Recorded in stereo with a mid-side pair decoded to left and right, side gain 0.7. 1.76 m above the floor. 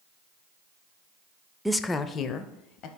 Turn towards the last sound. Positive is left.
turn(degrees=55)